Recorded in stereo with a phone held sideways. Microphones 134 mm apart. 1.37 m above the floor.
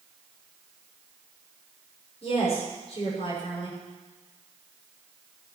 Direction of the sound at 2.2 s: 50° left (ahead or behind).